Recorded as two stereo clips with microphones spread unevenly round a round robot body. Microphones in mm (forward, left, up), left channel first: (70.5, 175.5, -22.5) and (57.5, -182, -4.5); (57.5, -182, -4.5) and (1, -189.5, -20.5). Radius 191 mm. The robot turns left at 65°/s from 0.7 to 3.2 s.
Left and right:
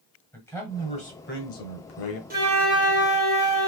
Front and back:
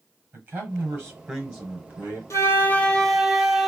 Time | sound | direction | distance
0.3 | a man speaking | 165° left | 1.3 m
2.3 | a flute | 25° right | 1.4 m